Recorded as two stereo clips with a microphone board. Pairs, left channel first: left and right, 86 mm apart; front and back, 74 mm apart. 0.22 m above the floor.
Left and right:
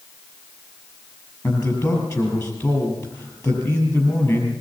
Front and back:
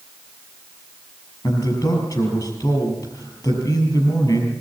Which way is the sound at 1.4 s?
40° left.